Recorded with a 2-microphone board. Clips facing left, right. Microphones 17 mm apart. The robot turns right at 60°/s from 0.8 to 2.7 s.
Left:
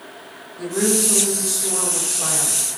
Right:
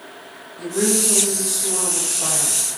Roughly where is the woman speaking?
Centre.